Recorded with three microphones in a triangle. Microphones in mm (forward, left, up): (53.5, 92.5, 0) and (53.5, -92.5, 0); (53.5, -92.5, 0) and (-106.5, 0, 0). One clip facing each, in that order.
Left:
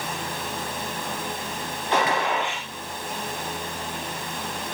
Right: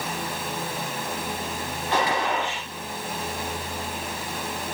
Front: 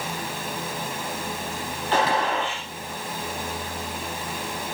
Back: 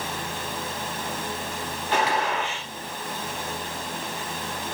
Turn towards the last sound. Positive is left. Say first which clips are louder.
# left 1 dB, front 2 dB
turn(degrees=20)